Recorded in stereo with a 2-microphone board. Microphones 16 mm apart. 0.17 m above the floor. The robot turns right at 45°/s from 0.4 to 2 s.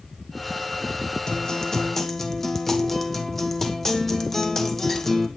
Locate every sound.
1.3 s a guitar: 130° left, 2.0 m; by 5.3 s 160° left, 2.0 m